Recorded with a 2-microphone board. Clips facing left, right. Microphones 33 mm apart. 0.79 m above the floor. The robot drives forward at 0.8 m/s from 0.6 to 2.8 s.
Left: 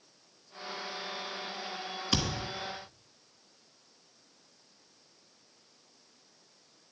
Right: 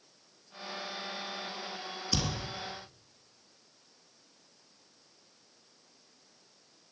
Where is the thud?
60° left (ahead or behind), 1.7 m; by 2.5 s 65° left (ahead or behind), 1.6 m.